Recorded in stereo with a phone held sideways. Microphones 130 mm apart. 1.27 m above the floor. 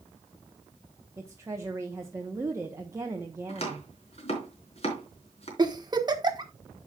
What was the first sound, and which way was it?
A woman speaking, 20° right (ahead or behind).